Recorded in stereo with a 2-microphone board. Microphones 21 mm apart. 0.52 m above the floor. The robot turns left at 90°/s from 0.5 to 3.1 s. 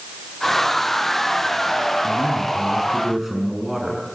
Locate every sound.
2.0 s a man speaking: 80° right, 6.5 m; by 4.0 s 175° right, 6.5 m